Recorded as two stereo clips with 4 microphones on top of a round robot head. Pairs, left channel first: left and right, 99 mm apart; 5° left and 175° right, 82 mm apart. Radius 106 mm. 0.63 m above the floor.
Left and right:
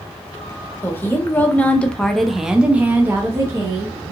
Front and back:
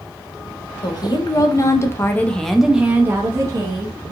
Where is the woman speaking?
25° left, 1.1 m; by 4.1 s 150° right, 1.1 m.